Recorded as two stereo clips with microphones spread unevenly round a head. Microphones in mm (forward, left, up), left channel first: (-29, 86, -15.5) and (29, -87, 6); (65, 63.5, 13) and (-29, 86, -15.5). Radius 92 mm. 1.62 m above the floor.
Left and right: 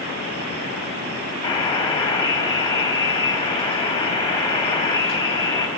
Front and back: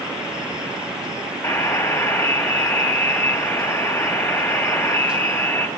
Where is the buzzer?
40° left, 1.8 m.